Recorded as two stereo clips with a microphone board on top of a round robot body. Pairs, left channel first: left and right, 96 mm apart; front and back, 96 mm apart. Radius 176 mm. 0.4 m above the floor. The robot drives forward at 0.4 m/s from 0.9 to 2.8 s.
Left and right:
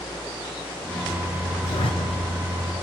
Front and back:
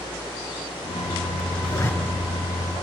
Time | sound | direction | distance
1.6 | a zipper | 65° left | 3 m